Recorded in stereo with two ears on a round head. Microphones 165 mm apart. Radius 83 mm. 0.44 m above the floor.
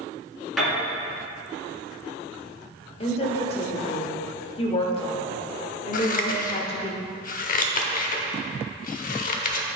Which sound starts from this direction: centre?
A piano, at 0.6 s.